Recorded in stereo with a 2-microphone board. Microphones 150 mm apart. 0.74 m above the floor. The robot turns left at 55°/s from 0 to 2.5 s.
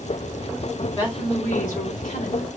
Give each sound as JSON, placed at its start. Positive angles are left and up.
{"t": 0.9, "sound": "a woman speaking", "azimuth_deg": 150, "distance_m": 4.0}